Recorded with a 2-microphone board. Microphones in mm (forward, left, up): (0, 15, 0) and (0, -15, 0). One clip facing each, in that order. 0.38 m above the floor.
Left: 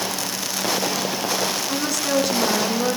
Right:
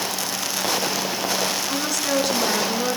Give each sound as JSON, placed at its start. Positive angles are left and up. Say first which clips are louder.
{"t": 1.7, "sound": "a woman speaking", "louder": "left 1 dB", "side_deg": 0, "distance_m": 3.5}